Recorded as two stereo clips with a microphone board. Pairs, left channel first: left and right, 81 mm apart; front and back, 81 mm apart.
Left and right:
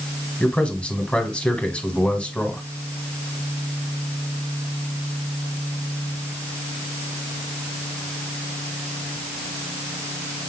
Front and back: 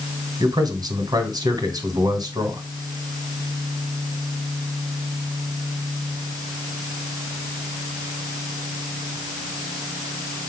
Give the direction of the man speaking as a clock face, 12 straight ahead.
7 o'clock.